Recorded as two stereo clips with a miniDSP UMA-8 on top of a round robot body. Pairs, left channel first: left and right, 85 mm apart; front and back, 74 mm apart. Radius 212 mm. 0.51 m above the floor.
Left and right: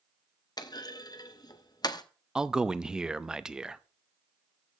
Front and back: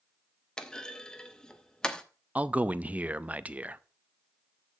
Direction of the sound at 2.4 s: 160° right.